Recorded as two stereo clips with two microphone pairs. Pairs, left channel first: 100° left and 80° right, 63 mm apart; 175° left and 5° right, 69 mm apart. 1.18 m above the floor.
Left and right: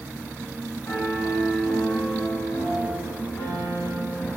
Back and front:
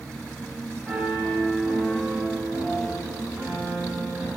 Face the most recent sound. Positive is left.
turn(degrees=65)